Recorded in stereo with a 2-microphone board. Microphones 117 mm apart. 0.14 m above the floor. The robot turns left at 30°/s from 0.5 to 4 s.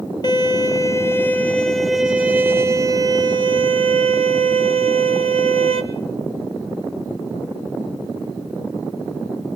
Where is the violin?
40° left, 1.6 m; by 5.8 s 65° right, 1.6 m.